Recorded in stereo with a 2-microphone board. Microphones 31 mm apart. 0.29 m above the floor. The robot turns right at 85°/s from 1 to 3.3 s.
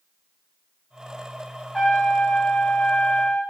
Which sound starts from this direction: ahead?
A trumpet, at 1.7 s.